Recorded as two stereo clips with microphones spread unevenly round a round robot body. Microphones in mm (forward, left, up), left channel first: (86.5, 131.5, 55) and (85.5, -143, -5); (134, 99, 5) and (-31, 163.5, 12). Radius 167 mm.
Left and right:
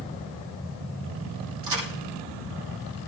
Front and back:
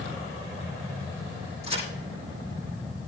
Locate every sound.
1.6 s a crack: 75° right, 8 m